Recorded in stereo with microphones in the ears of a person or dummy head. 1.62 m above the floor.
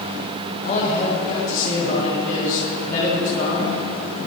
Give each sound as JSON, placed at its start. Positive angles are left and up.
{"t": 0.6, "sound": "a man speaking", "side_deg": 45, "distance_m": 2.5}